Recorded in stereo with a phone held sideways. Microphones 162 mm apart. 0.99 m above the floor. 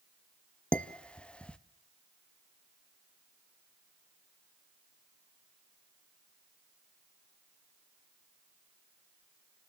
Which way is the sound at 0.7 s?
5° left (ahead or behind).